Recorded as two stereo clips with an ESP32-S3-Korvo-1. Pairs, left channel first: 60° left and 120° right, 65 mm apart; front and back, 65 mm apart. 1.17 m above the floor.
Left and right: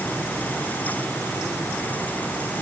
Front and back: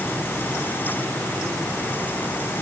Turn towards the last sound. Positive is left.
No sound to turn to.